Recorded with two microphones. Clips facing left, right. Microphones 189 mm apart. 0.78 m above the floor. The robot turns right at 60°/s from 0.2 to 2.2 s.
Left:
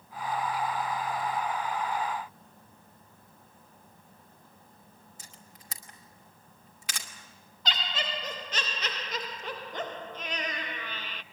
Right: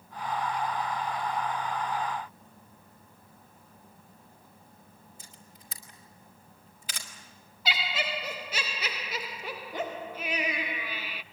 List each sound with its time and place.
5.2 s a camera shutter: 70° left (ahead or behind), 2.5 m
7.7 s laughter: 10° right (ahead or behind), 0.6 m